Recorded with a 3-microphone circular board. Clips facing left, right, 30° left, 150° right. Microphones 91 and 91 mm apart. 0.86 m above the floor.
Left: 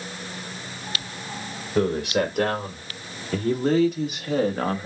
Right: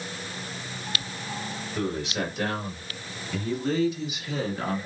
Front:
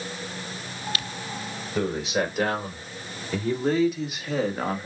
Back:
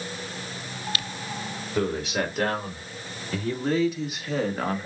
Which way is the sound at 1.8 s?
115° left.